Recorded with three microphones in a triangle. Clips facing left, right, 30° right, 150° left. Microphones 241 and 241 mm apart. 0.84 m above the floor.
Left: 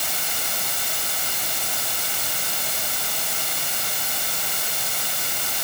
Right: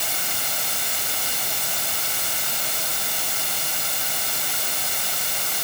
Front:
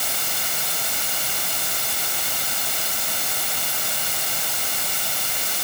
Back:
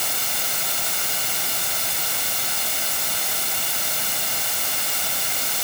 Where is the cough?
No cough in this recording.